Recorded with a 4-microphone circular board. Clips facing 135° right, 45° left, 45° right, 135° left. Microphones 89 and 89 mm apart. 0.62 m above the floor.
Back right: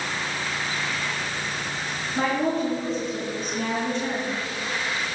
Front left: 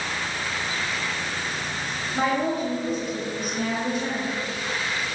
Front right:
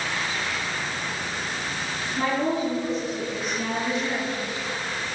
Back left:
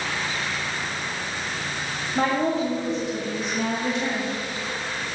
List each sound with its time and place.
2.1 s a woman speaking: 125° left, 2.5 m